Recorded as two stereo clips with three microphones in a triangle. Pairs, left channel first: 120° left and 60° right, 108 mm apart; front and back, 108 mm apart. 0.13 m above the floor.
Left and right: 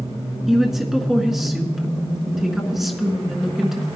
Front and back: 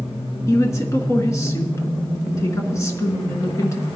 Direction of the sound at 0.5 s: 25° left.